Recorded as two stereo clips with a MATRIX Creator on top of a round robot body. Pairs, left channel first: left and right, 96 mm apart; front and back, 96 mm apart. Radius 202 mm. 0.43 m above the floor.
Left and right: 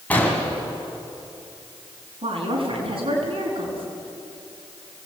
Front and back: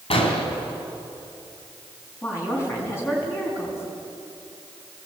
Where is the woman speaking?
65° right, 5.5 m.